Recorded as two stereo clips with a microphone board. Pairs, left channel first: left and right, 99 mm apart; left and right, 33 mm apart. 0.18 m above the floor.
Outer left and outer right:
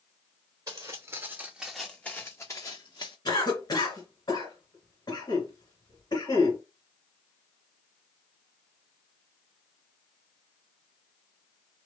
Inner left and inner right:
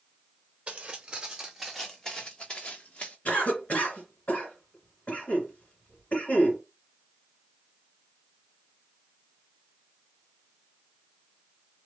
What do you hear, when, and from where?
0.7 s footsteps: 40° right (ahead or behind), 0.8 m; by 3.1 s 50° left (ahead or behind), 0.9 m
3.2 s a cough: 45° left (ahead or behind), 2 m